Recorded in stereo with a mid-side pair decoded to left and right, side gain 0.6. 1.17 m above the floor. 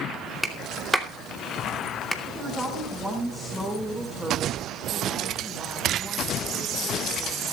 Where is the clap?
5° left, 2.5 m.